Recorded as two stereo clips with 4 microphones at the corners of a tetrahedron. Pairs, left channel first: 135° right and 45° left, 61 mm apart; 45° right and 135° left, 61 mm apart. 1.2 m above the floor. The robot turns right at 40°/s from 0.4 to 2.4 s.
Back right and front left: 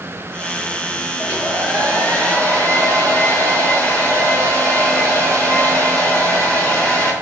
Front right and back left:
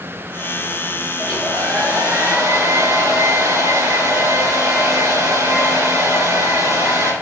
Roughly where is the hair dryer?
Left.